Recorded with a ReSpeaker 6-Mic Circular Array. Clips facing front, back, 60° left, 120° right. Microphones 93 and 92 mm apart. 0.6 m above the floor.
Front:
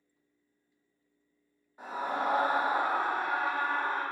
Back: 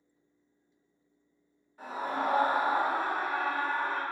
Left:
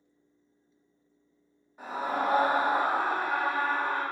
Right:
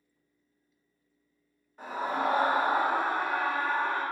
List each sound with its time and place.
1.8 s a scream: 5° right, 1.1 m